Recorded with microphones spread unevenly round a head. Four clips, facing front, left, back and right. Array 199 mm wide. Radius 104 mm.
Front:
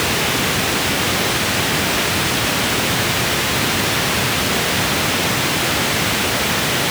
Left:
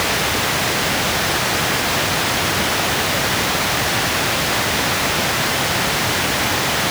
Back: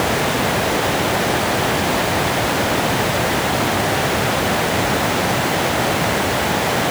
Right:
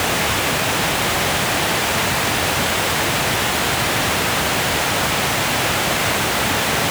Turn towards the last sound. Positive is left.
No sound to turn to.